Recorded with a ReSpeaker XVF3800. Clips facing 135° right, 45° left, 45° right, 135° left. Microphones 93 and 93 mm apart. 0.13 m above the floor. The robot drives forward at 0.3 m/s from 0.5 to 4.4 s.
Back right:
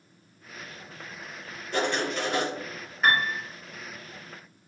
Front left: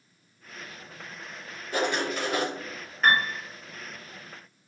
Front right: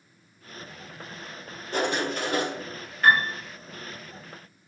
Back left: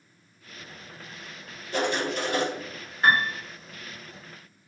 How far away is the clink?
No clink in this recording.